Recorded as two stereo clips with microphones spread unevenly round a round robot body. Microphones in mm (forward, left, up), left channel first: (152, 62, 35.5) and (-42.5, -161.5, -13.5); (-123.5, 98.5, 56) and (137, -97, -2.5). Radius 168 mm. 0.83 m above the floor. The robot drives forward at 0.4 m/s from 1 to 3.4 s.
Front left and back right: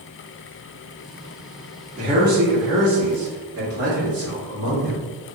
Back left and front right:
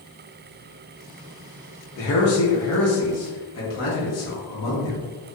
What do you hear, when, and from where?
2.0 s a man speaking: 170° right, 0.8 m; by 5.1 s 175° right, 1.3 m